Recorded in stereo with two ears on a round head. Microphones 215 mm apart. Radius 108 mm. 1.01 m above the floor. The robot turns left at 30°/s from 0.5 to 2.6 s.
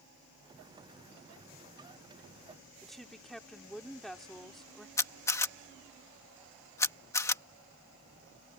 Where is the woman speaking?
Centre (ahead or behind).